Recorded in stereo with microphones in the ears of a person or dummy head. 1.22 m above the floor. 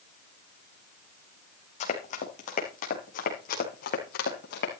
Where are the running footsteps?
35° left (ahead or behind), 4 m; by 4.7 s 55° left (ahead or behind), 4.5 m.